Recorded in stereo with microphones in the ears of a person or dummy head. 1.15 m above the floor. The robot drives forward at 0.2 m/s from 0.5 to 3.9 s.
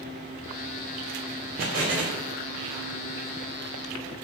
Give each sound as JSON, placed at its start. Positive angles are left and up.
{"t": 1.6, "sound": "an explosion", "side_deg": -45, "distance_m": 0.7}